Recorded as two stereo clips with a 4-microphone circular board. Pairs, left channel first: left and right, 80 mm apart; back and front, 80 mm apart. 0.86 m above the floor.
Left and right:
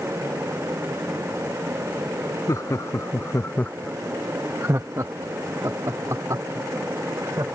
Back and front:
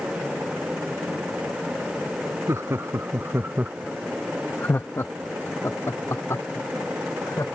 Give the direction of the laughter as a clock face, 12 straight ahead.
10 o'clock.